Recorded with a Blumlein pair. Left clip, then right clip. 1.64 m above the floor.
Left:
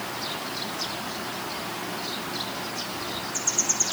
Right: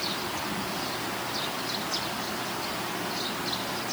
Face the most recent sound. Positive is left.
No sound to turn to.